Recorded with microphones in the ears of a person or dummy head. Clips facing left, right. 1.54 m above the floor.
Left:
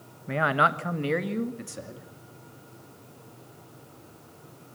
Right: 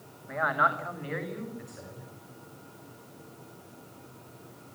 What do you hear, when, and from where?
0.3 s a man speaking: 45° left (ahead or behind), 1.2 m; by 2.1 s 55° left (ahead or behind), 2.5 m